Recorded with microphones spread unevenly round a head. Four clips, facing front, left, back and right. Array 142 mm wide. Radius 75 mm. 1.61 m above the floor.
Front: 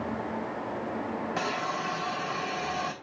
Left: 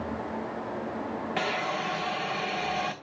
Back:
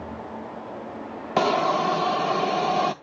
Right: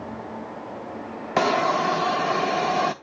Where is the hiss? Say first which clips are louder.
Right 12 dB, back 14 dB; 135° right, 0.7 m.